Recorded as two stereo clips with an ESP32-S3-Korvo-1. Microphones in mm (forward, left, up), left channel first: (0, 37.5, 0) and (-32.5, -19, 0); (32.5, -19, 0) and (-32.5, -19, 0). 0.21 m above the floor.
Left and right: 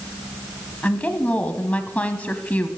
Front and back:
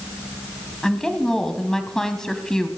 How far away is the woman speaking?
About 1.0 m.